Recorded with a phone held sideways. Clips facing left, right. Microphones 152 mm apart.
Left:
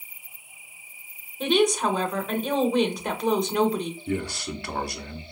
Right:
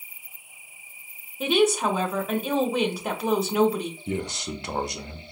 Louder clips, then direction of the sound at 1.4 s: Even; 5° right (ahead or behind).